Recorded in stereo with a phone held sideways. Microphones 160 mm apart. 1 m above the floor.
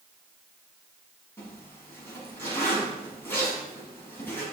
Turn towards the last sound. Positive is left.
turn(degrees=15)  # may be behind; listen again after turning